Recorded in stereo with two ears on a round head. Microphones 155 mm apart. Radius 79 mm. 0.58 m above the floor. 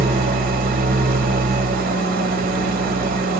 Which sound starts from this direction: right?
An engine running, at 0.0 s.